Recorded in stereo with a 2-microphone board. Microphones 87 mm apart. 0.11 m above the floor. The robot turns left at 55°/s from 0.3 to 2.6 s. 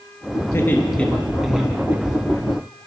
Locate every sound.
0.5 s laughter: 30° left (ahead or behind), 1.7 m; by 2.4 s 35° right (ahead or behind), 1.7 m